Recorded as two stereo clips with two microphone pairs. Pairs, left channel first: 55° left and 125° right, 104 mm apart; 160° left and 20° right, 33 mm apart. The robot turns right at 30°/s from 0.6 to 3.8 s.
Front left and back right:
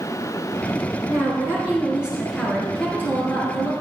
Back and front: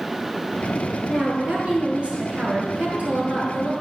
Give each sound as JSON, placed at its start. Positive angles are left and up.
{"t": 1.1, "sound": "a woman speaking", "azimuth_deg": -75, "distance_m": 3.0}